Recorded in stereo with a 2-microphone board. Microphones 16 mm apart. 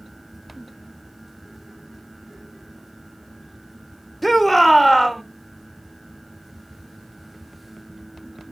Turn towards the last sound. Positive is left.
turn(degrees=0)  # may be behind; listen again after turning